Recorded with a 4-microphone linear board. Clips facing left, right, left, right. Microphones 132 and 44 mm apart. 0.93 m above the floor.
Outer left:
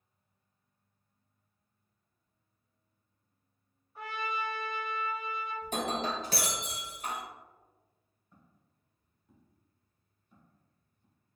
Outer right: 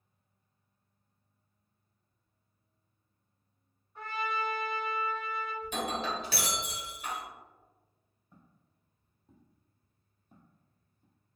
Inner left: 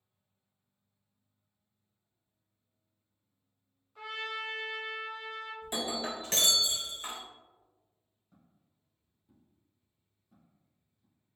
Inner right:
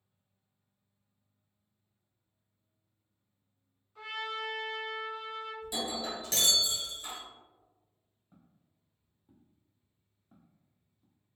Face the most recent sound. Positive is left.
turn(degrees=-50)  # may be behind; listen again after turning